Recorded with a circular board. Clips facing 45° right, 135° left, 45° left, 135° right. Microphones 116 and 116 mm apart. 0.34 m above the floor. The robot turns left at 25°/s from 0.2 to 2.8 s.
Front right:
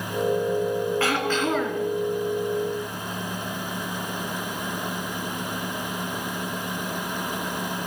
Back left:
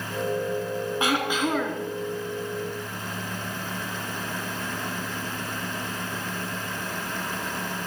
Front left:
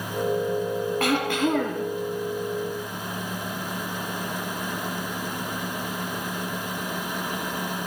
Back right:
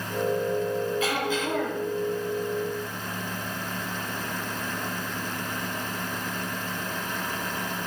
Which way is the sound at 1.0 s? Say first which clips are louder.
Front right 1 dB, front left 4 dB; 65° left.